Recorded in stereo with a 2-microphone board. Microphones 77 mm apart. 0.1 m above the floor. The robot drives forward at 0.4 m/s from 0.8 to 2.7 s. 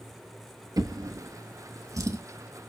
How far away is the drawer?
About 0.5 m.